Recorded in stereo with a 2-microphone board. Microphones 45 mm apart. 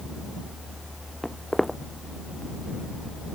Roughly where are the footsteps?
Centre.